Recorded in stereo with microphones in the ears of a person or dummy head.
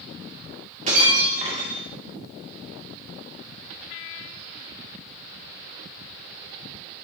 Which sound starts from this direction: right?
Breaking glass, at 0.9 s.